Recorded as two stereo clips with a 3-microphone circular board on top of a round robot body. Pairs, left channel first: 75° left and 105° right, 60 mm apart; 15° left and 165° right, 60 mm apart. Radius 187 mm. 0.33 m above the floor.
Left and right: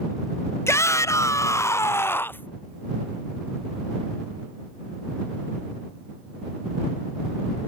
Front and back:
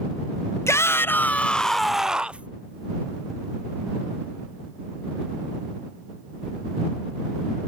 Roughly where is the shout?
Ahead left.